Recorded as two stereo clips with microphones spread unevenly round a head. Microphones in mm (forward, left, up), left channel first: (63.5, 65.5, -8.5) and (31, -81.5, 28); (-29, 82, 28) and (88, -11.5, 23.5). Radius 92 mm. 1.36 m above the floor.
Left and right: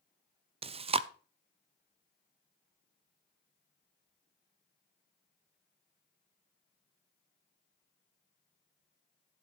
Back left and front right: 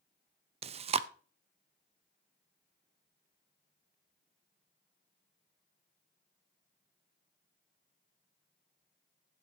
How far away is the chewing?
About 0.6 m.